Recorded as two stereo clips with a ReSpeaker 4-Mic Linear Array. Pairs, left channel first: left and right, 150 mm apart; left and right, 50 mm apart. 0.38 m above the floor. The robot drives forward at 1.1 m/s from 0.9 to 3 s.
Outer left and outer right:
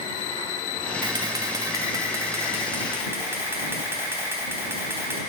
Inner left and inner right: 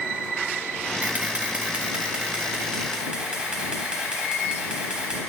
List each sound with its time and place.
1.0 s a camera shutter: 30° right (ahead or behind), 1.6 m; by 5.2 s 15° right (ahead or behind), 3 m